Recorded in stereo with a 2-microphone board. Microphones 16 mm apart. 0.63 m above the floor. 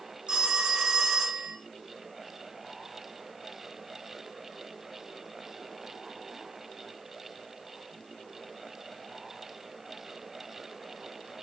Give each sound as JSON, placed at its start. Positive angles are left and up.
{"t": 0.3, "sound": "a phone ringing", "side_deg": -75, "distance_m": 1.3}